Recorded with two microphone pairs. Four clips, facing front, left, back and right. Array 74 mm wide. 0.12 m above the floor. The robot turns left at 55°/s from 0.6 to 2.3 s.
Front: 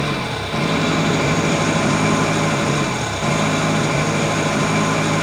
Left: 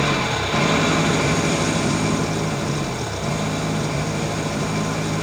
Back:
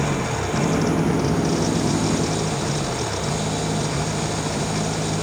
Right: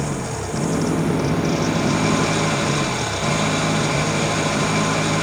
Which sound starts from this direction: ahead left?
An engine running, at 0.0 s.